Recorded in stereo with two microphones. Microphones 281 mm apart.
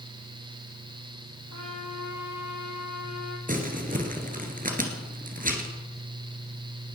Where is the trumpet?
70° left (ahead or behind), 3 m.